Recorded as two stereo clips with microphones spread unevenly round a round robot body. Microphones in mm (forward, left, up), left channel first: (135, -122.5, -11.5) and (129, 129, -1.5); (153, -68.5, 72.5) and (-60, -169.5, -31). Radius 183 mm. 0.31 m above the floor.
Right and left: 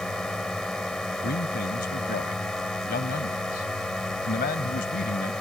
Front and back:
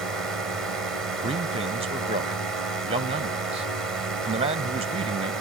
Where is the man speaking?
135° right.